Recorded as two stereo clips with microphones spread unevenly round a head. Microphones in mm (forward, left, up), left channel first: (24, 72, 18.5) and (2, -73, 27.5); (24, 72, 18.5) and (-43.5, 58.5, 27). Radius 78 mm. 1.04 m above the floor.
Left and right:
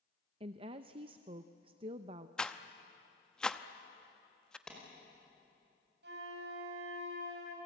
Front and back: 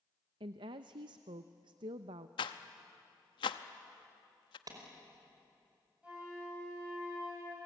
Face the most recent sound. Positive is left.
turn(degrees=-85)